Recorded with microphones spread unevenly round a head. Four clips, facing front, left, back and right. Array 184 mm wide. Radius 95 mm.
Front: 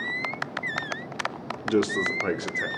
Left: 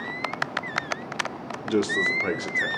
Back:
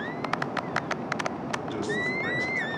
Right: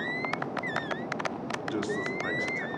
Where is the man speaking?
30° left, 2.5 m.